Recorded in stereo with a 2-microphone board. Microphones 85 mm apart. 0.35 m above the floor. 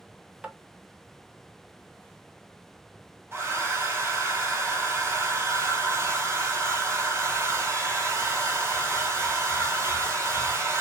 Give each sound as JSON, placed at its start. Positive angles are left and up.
{"t": 0.4, "sound": "tapping", "side_deg": -15, "distance_m": 0.5}
{"t": 3.3, "sound": "a hair dryer", "side_deg": -25, "distance_m": 1.5}